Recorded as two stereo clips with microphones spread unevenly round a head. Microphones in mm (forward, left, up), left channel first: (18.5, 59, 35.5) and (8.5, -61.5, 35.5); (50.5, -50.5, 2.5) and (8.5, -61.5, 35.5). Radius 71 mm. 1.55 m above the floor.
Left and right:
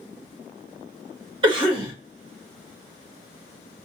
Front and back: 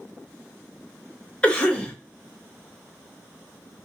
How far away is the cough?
About 1.1 m.